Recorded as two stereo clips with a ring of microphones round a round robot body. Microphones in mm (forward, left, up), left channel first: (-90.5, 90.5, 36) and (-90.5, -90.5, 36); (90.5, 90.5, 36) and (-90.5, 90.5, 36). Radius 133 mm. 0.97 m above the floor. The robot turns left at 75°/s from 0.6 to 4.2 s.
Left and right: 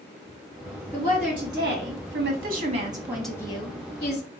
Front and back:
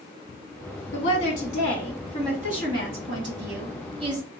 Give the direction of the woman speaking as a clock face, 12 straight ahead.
12 o'clock.